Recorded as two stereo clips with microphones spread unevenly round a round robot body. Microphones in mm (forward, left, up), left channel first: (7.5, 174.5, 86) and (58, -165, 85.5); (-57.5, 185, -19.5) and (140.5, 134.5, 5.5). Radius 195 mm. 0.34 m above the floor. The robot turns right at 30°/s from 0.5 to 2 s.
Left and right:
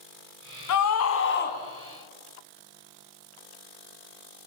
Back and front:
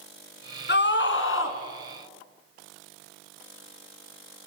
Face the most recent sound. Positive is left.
turn(degrees=180)